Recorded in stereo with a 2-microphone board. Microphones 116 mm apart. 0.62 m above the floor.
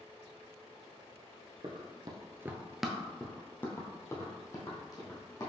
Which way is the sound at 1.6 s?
45° right (ahead or behind).